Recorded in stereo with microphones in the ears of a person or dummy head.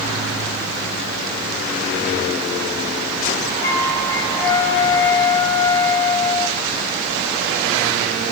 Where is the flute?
15° left (ahead or behind), 7.5 m.